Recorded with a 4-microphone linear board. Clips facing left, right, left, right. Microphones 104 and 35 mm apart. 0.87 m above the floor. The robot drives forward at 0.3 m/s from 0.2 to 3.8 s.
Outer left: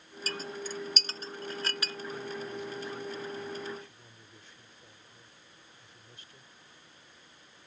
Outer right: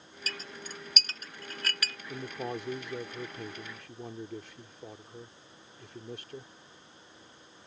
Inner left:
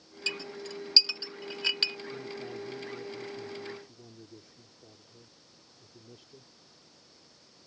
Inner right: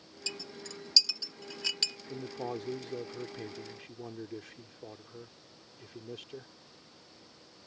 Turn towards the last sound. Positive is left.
turn(degrees=-75)  # may be behind; listen again after turning